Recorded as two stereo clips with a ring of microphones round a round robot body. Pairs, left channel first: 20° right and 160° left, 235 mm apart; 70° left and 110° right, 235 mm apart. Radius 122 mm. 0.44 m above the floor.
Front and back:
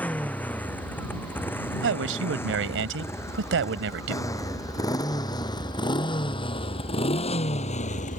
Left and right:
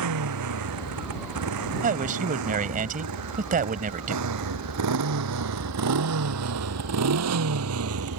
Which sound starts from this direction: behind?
A man speaking, at 1.8 s.